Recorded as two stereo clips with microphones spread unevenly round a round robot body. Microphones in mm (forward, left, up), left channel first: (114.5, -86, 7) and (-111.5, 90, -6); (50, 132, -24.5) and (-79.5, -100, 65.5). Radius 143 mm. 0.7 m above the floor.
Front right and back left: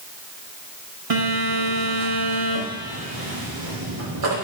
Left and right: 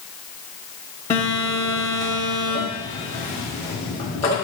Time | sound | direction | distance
1.1 | a phone buzzing | 135° left | 4 m